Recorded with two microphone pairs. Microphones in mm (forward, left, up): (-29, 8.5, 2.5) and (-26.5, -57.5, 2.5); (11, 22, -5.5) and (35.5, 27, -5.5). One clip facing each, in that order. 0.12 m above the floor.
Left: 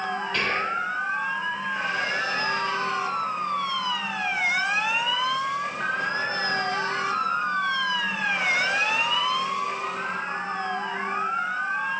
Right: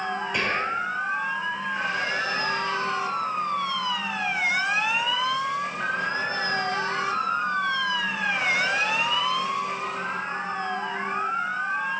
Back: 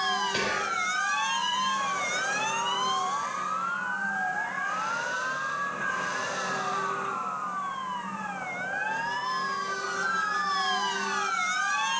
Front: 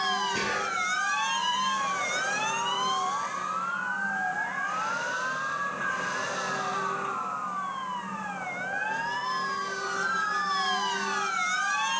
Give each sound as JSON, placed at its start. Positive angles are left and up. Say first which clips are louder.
{"t": 0.3, "sound": "whispering", "louder": "even, back 1 dB", "azimuth_deg": -160, "distance_m": 4.5}